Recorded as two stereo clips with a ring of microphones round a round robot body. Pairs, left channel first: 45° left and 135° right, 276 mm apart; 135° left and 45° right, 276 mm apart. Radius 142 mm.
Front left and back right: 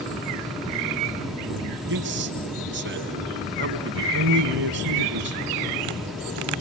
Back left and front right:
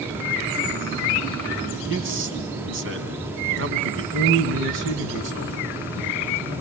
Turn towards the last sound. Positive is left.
turn(degrees=-90)